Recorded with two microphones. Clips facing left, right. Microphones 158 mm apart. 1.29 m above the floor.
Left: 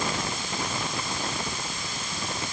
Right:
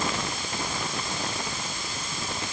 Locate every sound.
Only background noise.